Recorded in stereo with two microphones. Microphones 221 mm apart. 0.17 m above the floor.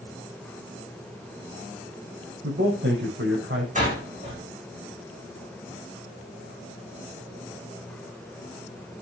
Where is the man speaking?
55° right (ahead or behind), 8 m; by 3.6 s 60° right (ahead or behind), 7.5 m.